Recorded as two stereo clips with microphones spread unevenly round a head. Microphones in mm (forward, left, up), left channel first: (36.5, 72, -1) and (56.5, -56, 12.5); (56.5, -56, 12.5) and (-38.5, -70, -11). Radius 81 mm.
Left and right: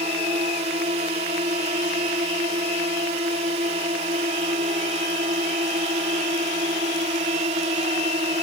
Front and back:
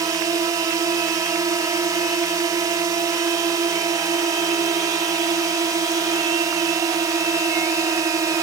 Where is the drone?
130° right.